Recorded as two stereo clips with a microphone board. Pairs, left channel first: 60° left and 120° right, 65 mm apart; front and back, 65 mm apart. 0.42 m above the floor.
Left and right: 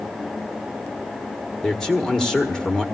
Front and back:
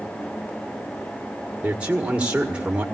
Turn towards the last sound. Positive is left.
turn(degrees=130)